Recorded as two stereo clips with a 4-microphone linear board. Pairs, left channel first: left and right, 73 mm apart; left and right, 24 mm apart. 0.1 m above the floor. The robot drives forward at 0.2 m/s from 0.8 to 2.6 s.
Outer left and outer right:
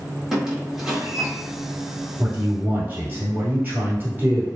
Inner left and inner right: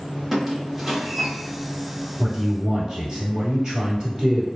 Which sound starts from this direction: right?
A man speaking, at 2.2 s.